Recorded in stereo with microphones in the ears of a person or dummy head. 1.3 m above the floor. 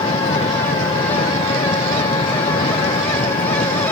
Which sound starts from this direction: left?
An engine running, at 0.0 s.